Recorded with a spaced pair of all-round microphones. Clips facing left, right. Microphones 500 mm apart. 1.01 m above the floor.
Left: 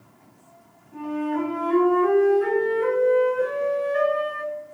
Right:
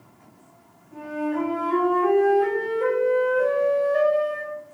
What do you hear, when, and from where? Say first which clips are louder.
0.9 s a flute: left 1 dB; 55° right (ahead or behind), 3.5 m